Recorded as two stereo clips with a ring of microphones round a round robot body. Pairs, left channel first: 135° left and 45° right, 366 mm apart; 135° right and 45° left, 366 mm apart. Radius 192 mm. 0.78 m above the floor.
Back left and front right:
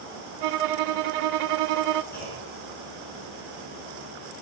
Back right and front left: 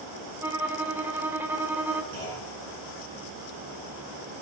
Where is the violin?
40° right, 0.6 m.